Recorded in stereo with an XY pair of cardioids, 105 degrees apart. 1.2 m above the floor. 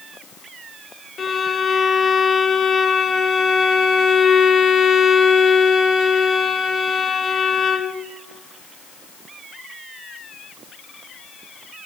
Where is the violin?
40° left, 0.7 m.